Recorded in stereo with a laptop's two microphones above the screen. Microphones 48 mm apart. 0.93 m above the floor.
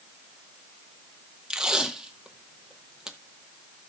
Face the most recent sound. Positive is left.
turn(degrees=-10)  # may be behind; listen again after turning